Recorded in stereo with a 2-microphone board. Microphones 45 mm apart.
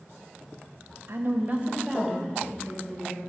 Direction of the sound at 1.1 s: 60° right (ahead or behind).